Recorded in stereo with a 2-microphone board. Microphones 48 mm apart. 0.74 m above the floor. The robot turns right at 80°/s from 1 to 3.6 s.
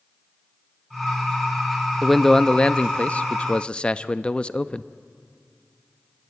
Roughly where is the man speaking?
Centre.